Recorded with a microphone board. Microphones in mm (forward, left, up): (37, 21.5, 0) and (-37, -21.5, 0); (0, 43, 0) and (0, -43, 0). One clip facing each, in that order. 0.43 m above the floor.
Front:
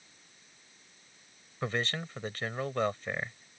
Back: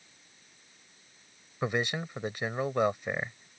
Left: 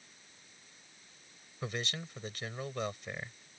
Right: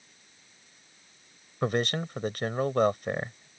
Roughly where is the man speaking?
Right.